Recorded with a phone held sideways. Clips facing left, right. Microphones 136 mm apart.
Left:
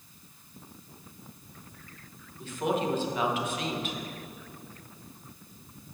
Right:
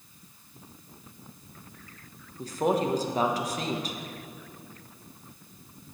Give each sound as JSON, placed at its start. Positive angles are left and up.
{"t": 2.4, "sound": "a woman speaking", "side_deg": -40, "distance_m": 0.9}